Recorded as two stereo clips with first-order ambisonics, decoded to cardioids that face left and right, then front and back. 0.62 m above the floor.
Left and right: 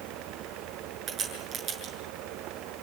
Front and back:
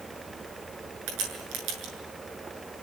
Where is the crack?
155° right, 7.5 m.